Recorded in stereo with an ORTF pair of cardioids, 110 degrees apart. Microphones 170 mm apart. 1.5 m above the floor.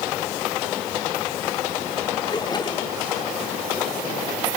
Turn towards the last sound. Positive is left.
turn(degrees=30)